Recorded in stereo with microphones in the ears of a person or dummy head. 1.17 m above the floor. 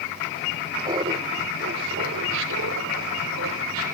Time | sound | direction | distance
0.8 | laughter | 20° right (ahead or behind) | 0.9 m